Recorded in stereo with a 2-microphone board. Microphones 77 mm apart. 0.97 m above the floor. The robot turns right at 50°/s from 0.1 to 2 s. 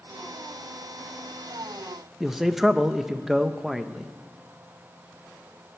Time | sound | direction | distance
2.2 | a man speaking | 5° right (ahead or behind) | 0.8 m